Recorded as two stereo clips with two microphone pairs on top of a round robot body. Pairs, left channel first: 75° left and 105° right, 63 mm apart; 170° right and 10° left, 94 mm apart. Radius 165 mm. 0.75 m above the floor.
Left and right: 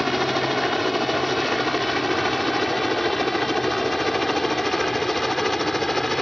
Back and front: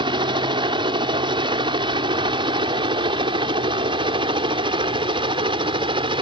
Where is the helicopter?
15° right; by 6.2 s 10° right.